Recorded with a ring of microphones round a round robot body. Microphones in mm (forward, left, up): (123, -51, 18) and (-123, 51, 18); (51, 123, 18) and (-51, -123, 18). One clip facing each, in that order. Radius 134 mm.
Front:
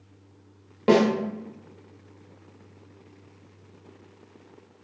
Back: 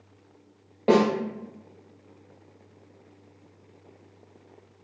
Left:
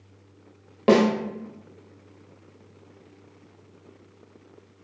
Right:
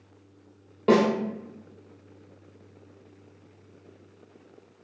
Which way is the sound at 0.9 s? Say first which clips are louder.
Front 1 dB, left 2 dB; 40° left.